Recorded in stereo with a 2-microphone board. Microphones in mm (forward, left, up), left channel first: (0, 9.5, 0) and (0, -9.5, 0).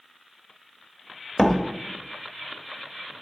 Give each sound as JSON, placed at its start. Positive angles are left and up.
{"t": 1.4, "sound": "a door slam", "side_deg": 20, "distance_m": 0.7}